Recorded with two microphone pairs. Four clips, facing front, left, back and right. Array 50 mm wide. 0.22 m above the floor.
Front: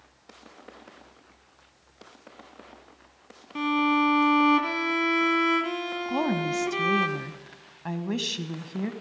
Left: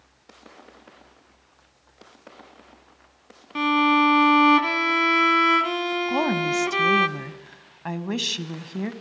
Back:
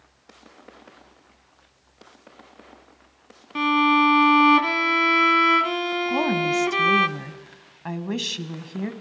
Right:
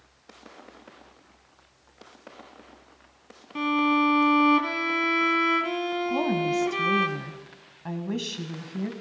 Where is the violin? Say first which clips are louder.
Left 4 dB, back 5 dB; 140° left, 1.2 m.